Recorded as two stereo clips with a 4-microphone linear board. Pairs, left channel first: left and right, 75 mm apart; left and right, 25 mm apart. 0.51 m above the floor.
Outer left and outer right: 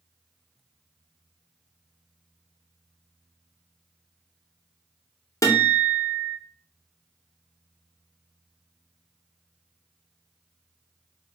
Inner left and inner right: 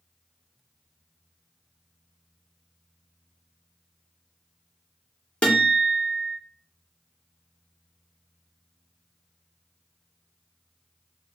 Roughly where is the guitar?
Left.